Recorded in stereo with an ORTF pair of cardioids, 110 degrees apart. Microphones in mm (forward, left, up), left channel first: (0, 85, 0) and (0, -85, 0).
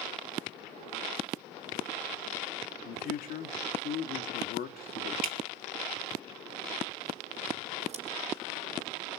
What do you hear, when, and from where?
2.9 s a man speaking: 60° left, 2.5 m
5.2 s dripping: 65° right, 1.7 m
7.9 s scissors: 40° right, 4.5 m